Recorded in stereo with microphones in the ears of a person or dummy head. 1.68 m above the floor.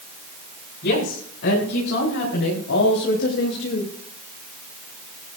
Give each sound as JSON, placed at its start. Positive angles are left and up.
{"t": 0.8, "sound": "a woman speaking", "side_deg": 65, "distance_m": 7.5}